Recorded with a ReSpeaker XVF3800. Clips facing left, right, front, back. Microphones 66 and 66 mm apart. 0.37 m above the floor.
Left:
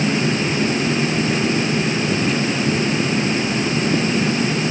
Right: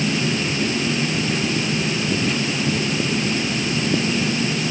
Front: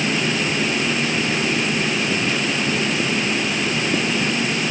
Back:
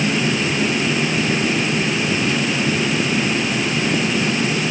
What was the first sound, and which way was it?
Only background noise.